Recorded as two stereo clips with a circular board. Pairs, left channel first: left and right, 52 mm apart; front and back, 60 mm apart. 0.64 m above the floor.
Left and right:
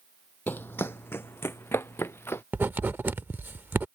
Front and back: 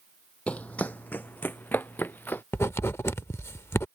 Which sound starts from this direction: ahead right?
Writing, at 2.5 s.